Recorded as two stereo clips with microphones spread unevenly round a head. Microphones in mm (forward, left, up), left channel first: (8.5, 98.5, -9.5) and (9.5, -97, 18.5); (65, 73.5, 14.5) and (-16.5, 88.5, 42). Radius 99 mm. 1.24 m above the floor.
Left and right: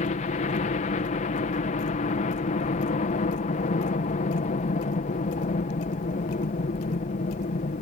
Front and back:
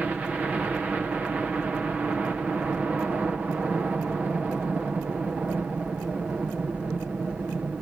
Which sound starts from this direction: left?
A helicopter, at 0.0 s.